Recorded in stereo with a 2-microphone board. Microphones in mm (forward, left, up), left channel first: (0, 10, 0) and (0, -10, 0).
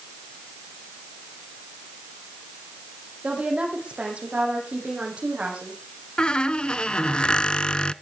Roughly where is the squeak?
Left.